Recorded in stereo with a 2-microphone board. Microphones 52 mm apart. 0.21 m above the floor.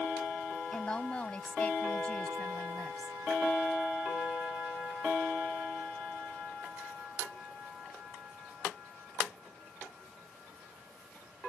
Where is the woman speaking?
20° left (ahead or behind).